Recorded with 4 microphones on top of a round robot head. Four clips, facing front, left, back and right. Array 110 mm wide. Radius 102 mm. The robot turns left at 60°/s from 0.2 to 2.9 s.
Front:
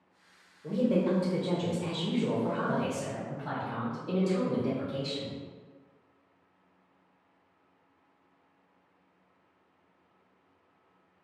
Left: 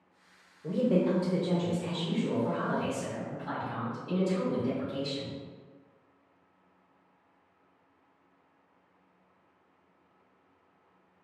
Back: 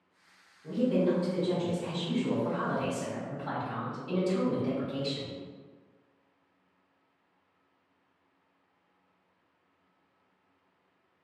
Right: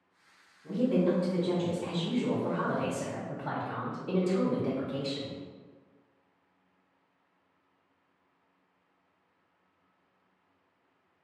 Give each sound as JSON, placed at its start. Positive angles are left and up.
{"t": 0.6, "sound": "a woman speaking", "azimuth_deg": 70, "distance_m": 0.8}